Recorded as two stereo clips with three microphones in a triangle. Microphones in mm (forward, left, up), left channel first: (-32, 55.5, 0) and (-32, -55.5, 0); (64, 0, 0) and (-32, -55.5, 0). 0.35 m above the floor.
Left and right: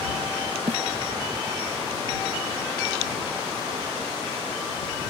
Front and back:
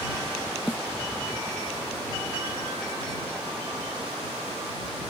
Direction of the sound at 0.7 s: 65° right.